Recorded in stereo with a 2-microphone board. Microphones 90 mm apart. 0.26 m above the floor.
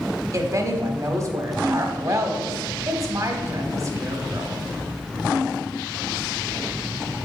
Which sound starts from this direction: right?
A woman speaking, at 0.3 s.